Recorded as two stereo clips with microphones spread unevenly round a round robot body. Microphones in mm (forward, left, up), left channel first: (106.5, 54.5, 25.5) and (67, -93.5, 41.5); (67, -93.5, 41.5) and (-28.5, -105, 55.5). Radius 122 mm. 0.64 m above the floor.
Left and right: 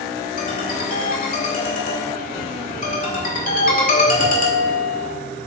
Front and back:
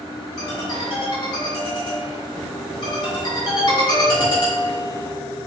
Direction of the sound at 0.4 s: 50° left.